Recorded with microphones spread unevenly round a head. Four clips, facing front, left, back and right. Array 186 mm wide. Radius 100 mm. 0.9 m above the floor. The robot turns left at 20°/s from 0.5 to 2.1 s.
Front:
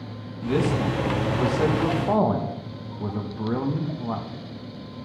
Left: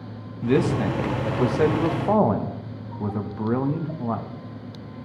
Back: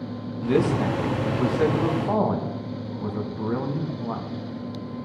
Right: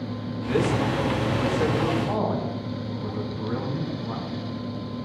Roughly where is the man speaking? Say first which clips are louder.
Left 3 dB, back 2 dB; left.